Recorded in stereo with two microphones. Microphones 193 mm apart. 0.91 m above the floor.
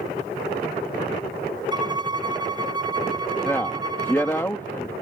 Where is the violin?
20° right (ahead or behind).